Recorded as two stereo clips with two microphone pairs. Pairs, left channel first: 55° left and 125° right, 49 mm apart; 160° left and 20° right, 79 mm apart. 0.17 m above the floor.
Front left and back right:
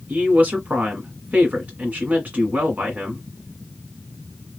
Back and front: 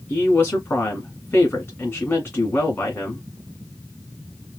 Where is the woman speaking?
160° right, 1.6 m.